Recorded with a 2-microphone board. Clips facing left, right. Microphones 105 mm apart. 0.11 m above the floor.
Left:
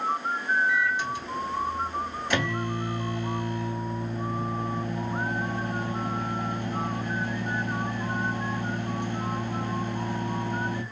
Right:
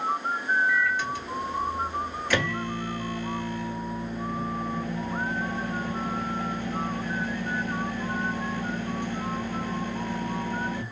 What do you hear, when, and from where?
0.7 s a microwave: 20° left (ahead or behind), 1.3 m